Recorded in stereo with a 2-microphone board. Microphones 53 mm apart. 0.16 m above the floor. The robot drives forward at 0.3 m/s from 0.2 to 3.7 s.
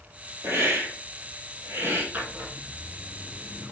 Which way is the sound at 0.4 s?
50° right (ahead or behind).